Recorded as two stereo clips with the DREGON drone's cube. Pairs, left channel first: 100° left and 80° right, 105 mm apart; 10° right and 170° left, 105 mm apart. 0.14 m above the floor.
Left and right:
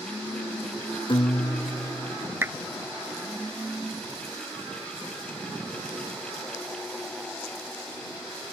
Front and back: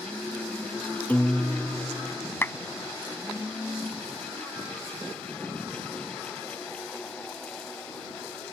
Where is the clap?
50° right.